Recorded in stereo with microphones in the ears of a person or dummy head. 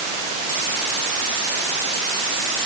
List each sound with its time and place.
Only background noise.